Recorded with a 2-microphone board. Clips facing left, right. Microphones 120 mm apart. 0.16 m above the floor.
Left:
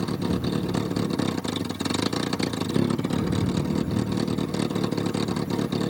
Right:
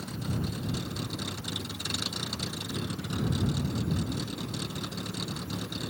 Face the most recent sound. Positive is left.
turn(degrees=85)